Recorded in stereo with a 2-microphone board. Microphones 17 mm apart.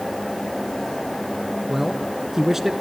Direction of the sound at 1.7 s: 25° right (ahead or behind).